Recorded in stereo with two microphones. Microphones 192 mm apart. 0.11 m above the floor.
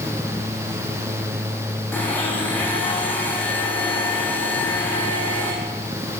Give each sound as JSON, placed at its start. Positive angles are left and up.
{"t": 1.9, "sound": "a blender", "side_deg": 10, "distance_m": 6.5}